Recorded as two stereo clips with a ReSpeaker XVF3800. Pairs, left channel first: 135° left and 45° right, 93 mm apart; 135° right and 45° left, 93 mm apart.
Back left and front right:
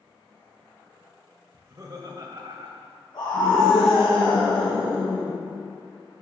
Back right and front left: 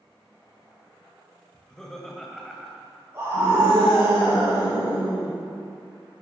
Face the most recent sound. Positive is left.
turn(degrees=105)